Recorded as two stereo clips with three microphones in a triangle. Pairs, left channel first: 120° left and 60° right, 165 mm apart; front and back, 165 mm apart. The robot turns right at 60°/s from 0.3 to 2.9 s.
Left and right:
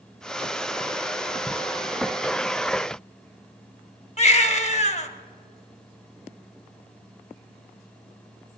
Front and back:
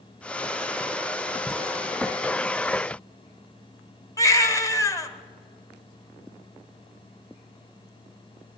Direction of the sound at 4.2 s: 70° left.